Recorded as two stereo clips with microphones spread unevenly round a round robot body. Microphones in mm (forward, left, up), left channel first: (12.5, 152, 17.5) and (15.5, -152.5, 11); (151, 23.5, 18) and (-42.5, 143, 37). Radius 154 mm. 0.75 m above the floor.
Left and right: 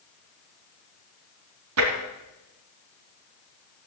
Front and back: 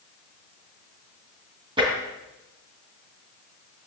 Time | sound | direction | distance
1.8 | tapping | 135° right | 2.5 m